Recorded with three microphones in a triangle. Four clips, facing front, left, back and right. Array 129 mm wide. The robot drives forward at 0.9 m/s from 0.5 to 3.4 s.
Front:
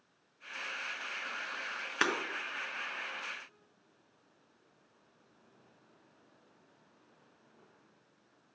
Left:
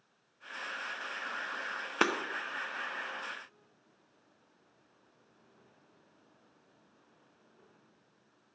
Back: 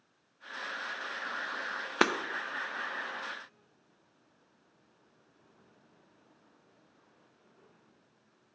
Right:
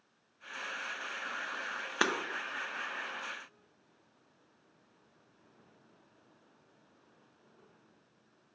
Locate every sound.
2.0 s breaking glass: 155° left, 0.5 m; by 2.1 s 160° left, 0.6 m